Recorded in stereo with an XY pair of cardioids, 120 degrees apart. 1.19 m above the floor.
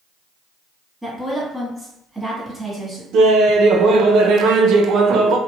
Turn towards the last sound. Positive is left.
turn(degrees=-65)